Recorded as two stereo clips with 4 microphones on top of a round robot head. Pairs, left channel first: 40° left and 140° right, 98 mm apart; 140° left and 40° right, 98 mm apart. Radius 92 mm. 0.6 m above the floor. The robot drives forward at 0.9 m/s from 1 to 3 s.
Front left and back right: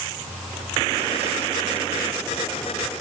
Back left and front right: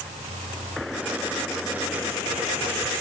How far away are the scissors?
No scissors in this recording.